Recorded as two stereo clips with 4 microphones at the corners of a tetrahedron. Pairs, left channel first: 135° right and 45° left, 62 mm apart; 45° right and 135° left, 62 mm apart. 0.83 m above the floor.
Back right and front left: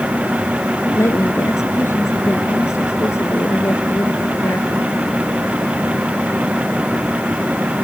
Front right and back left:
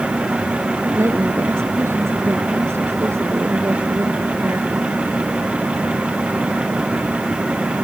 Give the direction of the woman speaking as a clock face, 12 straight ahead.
6 o'clock.